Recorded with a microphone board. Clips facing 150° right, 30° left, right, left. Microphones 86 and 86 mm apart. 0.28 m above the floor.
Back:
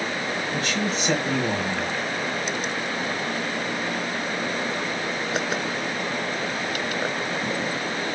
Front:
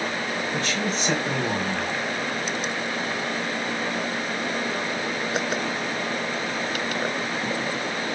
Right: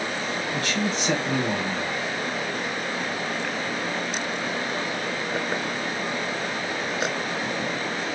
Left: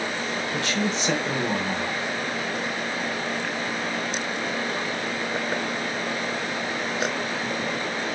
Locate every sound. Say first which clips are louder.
0.5 s a man speaking: back 1 dB, left 1 dB; 120° left, 1.5 m